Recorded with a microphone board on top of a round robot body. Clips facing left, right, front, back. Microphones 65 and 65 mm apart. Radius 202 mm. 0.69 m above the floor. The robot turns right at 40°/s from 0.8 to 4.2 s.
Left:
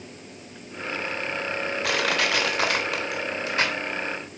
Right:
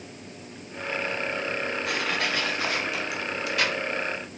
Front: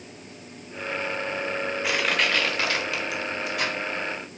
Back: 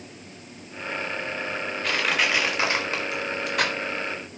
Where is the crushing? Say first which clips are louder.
Left 6 dB, back 1 dB; 80° left, 4 m; by 3.8 s 155° left, 4 m.